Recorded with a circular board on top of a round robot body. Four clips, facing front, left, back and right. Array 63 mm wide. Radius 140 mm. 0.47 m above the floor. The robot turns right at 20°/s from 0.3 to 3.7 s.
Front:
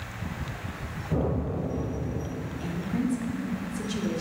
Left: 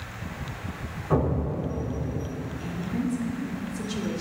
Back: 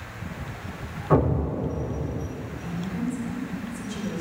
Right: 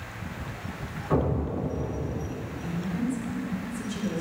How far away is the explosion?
About 0.6 m.